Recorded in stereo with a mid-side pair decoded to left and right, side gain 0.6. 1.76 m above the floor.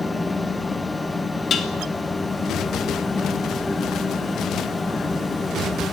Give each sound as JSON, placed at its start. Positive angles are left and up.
{"t": 0.0, "sound": "a fan", "azimuth_deg": 10, "distance_m": 1.4}
{"t": 1.5, "sound": "dishes clattering", "azimuth_deg": 40, "distance_m": 2.5}